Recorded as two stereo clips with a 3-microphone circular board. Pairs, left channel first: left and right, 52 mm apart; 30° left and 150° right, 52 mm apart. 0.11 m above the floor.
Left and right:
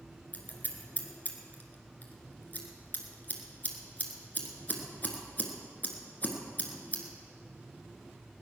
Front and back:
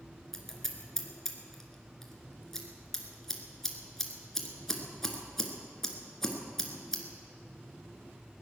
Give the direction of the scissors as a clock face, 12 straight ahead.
9 o'clock.